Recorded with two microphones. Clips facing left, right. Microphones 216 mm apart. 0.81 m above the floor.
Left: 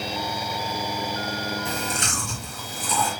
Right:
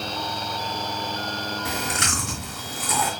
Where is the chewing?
85° right, 4 m.